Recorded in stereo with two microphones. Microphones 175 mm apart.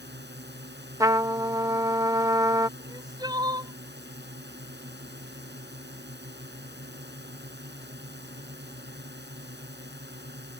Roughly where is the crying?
Right.